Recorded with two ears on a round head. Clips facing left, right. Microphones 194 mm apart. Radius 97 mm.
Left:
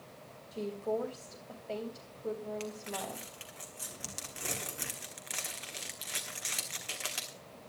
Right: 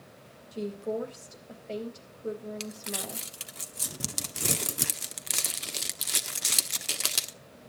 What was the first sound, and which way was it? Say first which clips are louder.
A woman speaking: right 2 dB; 20° right (ahead or behind).